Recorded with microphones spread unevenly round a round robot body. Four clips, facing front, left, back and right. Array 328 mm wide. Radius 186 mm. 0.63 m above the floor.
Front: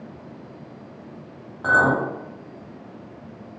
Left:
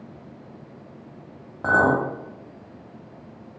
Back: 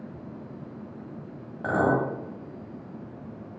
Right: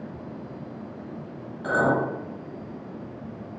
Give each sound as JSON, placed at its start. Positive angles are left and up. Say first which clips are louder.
{"t": 1.6, "sound": "a clink", "louder": "left 3 dB, front 4 dB", "azimuth_deg": 80, "distance_m": 2.5}